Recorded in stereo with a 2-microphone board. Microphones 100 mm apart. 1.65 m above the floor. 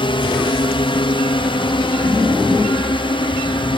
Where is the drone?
60° left (ahead or behind); by 3.8 s 55° left (ahead or behind).